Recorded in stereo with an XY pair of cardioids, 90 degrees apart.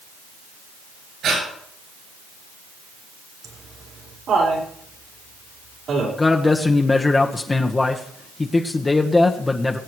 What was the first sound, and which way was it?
Breathing, 70° right.